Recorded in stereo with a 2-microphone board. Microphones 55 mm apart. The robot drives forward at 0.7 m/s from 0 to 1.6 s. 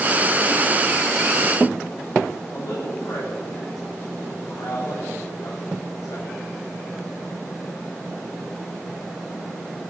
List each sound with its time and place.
2.5 s a woman speaking: 60° left (ahead or behind), 9 m